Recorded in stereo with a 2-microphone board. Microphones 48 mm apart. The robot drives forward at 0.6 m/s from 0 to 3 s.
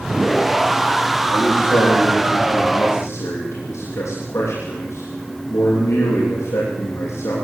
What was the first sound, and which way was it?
A man speaking, 70° left (ahead or behind).